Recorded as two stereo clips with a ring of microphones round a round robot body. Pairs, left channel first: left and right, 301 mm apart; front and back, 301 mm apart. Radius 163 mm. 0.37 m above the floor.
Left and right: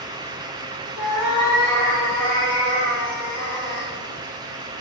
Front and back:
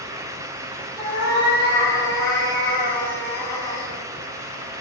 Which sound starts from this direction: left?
A cat meowing, at 1.0 s.